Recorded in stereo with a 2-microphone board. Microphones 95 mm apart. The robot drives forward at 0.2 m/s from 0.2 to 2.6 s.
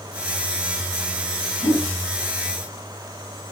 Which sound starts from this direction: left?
A whoosh, at 1.6 s.